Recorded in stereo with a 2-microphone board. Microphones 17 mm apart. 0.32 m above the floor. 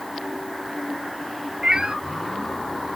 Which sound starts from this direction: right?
A cat meowing, at 1.6 s.